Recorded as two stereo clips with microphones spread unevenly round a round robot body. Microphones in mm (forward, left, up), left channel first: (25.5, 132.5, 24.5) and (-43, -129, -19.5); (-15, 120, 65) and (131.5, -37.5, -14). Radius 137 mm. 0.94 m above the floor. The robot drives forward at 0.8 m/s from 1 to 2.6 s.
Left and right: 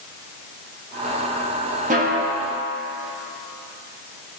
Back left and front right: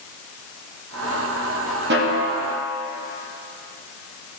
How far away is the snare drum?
About 1.5 m.